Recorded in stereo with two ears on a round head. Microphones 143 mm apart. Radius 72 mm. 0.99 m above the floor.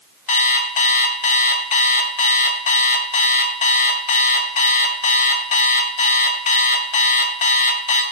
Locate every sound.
0.3 s an alarm clock: 45° left (ahead or behind), 1.1 m